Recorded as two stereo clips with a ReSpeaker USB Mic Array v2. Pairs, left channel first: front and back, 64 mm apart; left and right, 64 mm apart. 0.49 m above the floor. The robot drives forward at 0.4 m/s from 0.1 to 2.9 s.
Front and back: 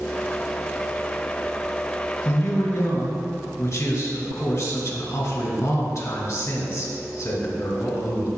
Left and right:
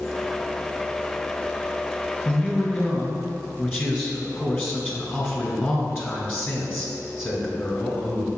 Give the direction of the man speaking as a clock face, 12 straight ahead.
11 o'clock.